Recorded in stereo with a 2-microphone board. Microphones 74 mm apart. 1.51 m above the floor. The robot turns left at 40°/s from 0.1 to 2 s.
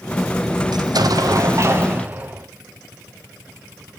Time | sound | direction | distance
0.7 | an explosion | 100° right | 0.7 m